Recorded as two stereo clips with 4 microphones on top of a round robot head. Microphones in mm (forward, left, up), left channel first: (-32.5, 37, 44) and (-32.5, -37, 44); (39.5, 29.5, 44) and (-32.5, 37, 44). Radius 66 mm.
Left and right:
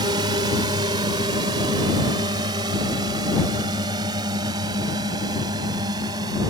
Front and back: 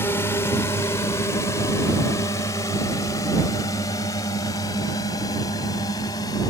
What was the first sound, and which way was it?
A drone, 65° right.